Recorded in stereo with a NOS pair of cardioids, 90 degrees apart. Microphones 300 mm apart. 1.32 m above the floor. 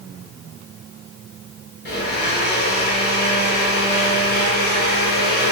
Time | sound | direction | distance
1.9 | a blender | 35° left | 1.4 m